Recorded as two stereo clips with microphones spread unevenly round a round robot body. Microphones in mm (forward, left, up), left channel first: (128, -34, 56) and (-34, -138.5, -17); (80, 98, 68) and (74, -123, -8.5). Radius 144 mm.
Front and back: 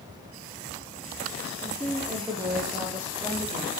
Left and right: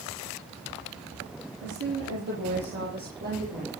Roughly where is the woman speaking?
Ahead right.